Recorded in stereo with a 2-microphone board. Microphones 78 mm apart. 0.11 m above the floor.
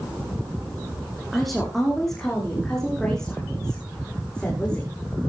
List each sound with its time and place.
1.3 s a woman speaking: centre (ahead or behind), 6.5 m; by 5.0 s 10° left (ahead or behind), 8 m